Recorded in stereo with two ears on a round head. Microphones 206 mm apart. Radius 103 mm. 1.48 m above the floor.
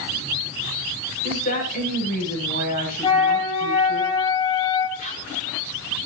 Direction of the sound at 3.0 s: 20° left (ahead or behind).